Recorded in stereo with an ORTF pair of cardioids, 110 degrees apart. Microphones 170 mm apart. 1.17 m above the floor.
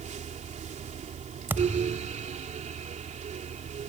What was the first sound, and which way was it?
A fan, 45° right.